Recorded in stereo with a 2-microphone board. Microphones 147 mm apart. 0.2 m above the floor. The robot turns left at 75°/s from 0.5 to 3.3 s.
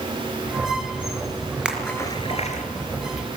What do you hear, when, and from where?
1.6 s a splash: 5° right (ahead or behind), 4 m; by 2.6 s 60° left (ahead or behind), 4 m